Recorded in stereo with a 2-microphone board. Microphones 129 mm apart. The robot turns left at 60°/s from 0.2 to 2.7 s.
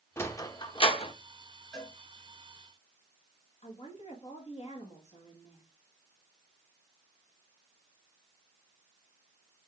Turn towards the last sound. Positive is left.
turn(degrees=55)  # may be behind; listen again after turning